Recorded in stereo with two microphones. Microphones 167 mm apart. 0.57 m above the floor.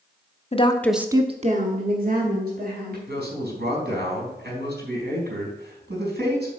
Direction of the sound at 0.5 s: 40° left (ahead or behind).